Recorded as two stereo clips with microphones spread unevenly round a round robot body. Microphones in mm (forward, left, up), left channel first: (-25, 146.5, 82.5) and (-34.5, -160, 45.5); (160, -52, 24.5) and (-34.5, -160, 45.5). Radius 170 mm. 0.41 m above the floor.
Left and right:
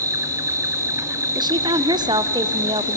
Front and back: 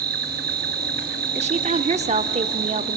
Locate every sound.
0.0 s an insect: 155° right, 1.1 m
1.4 s a woman speaking: 130° right, 0.8 m